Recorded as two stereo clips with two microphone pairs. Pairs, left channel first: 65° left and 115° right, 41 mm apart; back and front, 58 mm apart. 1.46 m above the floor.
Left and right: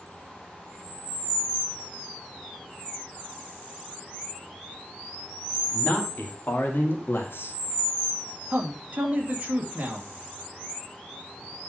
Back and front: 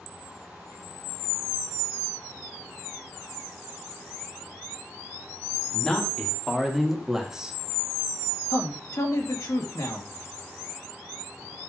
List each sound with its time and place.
5.7 s a man speaking: 105° left, 2.5 m; by 7.6 s 70° left, 1.9 m
8.5 s a man speaking: 175° right, 2.5 m